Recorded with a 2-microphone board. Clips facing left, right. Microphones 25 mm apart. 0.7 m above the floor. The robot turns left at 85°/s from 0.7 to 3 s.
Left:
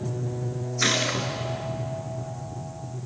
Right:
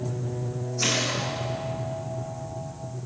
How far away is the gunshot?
About 3.5 m.